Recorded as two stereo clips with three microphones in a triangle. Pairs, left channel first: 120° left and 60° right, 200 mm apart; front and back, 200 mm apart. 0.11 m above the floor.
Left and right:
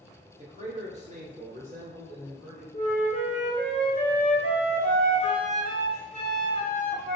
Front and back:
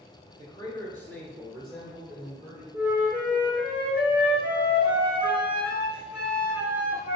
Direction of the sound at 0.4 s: 50° right.